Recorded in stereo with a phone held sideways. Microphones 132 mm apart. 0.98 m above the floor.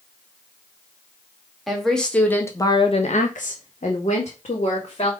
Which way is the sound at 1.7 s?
Centre (ahead or behind).